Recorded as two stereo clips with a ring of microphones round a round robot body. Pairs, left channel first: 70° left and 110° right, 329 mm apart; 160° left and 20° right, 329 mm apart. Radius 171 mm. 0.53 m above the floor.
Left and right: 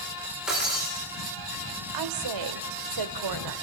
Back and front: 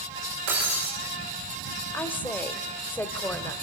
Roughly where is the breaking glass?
Ahead right.